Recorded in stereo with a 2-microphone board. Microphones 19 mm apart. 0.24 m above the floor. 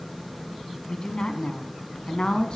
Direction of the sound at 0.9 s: 50° left (ahead or behind).